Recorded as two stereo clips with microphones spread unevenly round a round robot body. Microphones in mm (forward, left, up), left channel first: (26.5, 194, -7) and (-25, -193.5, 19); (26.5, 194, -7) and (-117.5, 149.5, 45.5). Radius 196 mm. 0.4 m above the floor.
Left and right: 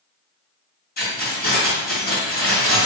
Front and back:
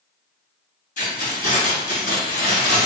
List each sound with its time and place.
1.0 s keys jangling: 20° left, 1.9 m